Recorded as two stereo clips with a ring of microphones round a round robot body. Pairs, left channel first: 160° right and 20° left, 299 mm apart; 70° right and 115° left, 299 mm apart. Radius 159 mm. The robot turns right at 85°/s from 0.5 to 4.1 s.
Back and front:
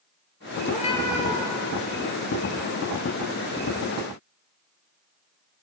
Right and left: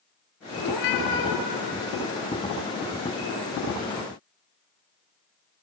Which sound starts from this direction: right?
A cat meowing, at 0.6 s.